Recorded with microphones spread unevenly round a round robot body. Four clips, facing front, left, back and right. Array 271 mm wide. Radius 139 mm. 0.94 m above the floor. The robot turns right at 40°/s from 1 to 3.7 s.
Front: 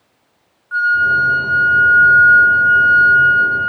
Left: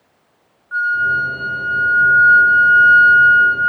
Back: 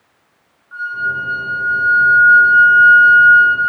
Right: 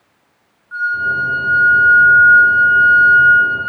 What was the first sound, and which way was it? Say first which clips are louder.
A flute: left 1 dB, front 7 dB; 20° left.